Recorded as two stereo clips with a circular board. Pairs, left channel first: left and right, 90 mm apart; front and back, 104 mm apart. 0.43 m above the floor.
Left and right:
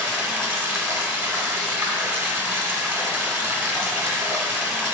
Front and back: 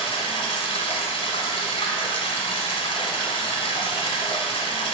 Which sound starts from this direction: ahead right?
Running water, at 0.0 s.